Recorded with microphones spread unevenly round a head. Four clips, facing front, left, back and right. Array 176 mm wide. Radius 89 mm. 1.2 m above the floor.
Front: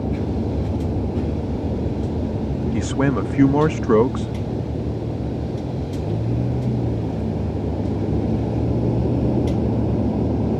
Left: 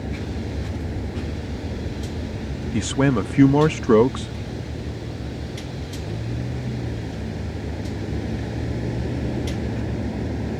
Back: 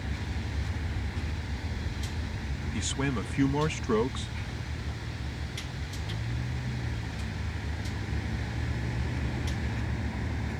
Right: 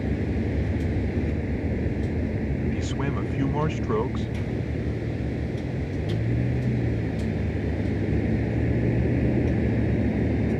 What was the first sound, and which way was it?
A vehicle, 15° right.